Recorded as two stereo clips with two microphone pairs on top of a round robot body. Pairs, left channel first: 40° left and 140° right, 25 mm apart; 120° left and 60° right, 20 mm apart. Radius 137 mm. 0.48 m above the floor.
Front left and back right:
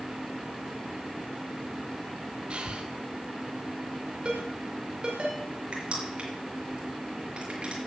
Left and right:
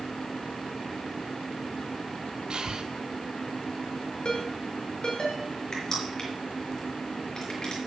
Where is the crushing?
175° right, 5 m.